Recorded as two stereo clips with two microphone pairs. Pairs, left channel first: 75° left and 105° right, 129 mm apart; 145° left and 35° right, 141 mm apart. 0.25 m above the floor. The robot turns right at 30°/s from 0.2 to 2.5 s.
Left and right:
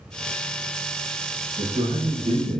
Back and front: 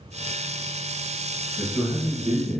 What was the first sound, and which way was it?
A man speaking, 120° right.